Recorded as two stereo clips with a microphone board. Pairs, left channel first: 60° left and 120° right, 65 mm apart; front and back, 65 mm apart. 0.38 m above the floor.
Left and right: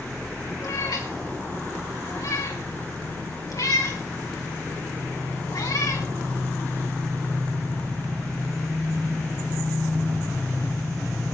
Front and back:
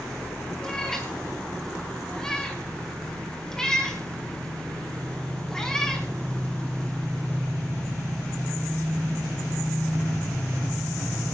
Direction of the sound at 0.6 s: 80° left.